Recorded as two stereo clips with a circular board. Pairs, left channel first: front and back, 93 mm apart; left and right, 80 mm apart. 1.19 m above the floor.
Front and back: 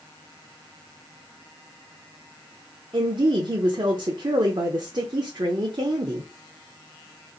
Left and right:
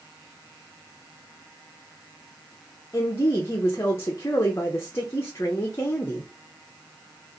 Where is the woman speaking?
145° left, 0.6 m.